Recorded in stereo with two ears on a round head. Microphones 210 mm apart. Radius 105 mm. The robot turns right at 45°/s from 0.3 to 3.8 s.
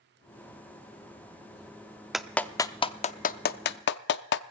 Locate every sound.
2.1 s a clap: centre (ahead or behind), 0.5 m; by 4.4 s 50° left (ahead or behind), 0.5 m